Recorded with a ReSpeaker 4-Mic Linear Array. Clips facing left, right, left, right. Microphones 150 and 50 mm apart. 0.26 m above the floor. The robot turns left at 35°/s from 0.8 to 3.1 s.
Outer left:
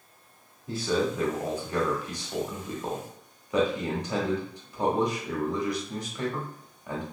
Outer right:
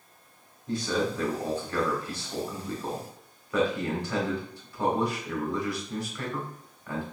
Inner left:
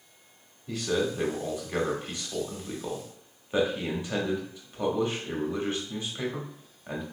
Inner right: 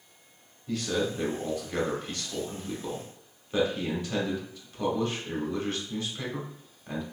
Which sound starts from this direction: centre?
A man speaking, at 0.7 s.